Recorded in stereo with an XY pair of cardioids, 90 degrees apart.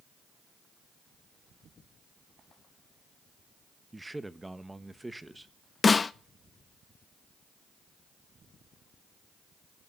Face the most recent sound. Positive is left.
turn(degrees=35)